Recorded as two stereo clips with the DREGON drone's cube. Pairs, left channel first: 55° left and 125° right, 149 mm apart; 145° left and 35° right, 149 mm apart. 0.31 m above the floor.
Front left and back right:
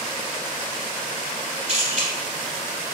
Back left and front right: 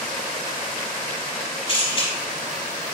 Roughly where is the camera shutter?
Behind.